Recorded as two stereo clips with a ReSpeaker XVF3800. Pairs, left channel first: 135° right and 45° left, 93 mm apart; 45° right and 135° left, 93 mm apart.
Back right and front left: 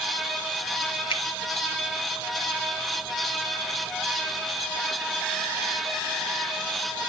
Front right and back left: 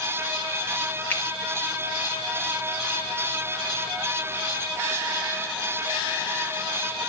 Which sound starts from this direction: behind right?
A finger snap, at 1.1 s.